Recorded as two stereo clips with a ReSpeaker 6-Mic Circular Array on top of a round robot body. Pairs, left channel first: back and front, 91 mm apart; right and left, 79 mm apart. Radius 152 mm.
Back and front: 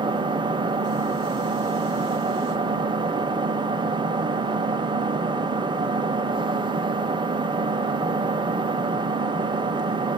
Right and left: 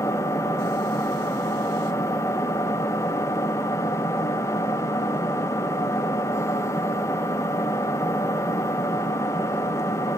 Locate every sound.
0.0 s an engine running: 35° right, 1.6 m